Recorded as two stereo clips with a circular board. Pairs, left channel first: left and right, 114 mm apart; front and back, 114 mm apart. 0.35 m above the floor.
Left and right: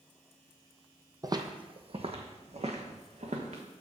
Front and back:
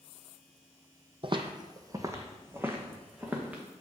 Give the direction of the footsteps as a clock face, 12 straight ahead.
5 o'clock.